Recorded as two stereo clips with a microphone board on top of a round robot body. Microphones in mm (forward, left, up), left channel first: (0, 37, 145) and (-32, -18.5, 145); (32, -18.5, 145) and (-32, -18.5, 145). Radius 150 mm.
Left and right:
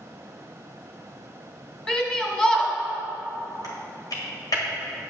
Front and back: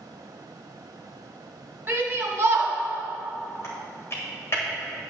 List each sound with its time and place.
1.9 s a shout: 130° left, 2 m
3.6 s typing on a keyboard: 45° left, 1.7 m